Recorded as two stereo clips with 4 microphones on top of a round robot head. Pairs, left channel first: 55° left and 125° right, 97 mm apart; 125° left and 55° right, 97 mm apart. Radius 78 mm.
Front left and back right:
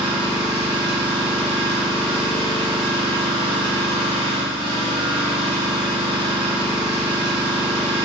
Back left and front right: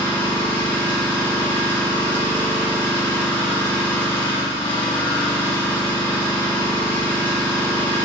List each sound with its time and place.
0.0 s an engine running: 165° right, 1.9 m